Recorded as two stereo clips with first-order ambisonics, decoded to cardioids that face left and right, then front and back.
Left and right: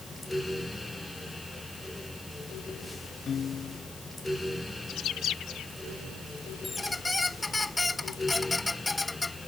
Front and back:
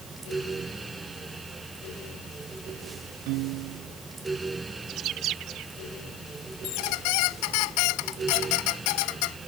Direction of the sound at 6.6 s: 10° left.